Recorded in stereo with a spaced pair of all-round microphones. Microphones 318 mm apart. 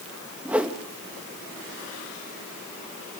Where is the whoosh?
5° right (ahead or behind), 1.4 m.